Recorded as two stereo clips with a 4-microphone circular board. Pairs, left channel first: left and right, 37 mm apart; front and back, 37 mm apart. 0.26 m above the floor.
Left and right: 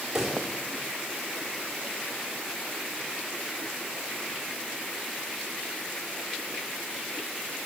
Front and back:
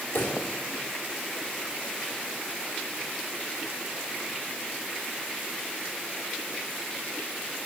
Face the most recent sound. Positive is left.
turn(degrees=-15)